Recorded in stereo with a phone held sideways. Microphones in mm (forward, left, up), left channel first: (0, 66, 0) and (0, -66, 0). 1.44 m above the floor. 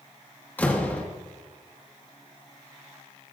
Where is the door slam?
15° left (ahead or behind), 1.8 m.